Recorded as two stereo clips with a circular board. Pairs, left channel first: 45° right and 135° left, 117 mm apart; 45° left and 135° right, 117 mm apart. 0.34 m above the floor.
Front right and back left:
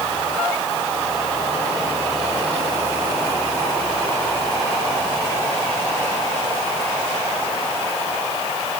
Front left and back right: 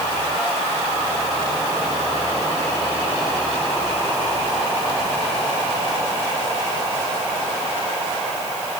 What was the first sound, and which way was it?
Only background noise.